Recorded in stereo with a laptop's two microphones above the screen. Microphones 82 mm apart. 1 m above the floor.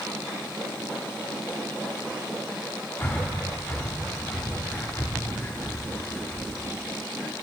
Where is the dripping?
I don't hear dripping.